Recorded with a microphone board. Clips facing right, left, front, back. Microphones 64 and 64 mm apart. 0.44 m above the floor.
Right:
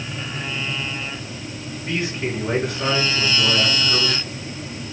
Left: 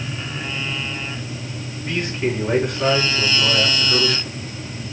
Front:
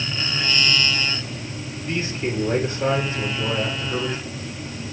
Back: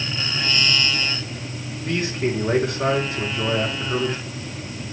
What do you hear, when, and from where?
1.8 s a man speaking: straight behind, 5 m